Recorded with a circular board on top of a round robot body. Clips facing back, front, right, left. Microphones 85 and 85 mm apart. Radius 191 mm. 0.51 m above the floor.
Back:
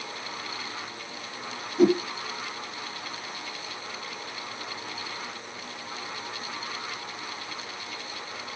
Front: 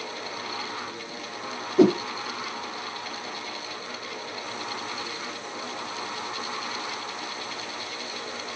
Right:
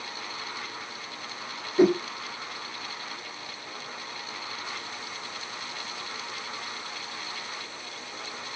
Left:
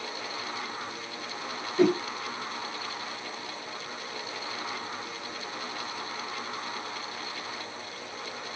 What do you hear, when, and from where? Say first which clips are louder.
1.8 s a whoosh: front 2 dB, right 3 dB; 15° right, 0.7 m